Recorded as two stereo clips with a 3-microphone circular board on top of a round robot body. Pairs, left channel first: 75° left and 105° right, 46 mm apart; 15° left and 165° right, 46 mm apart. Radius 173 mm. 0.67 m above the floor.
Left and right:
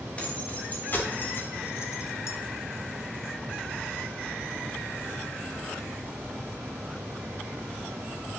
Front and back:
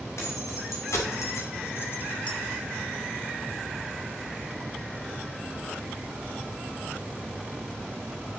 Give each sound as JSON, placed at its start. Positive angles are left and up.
{"t": 0.2, "sound": "keys jangling", "azimuth_deg": 15, "distance_m": 2.5}